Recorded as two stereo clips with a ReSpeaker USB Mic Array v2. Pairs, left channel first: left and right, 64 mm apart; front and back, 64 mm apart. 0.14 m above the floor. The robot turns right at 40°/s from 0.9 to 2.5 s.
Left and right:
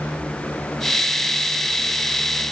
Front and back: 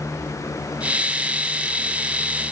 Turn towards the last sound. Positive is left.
No sound to turn to.